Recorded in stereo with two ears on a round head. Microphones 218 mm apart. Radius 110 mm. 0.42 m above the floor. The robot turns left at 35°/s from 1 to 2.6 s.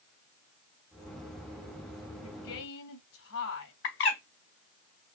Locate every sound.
2.2 s a woman speaking: 70° left (ahead or behind), 3 m; by 3.7 s 60° left (ahead or behind), 3 m
3.8 s a bird: 55° left (ahead or behind), 2 m